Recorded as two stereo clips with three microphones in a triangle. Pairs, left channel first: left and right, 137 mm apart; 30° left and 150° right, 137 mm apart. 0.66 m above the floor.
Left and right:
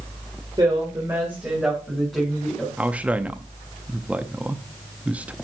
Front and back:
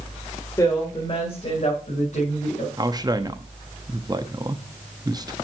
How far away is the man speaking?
About 0.7 m.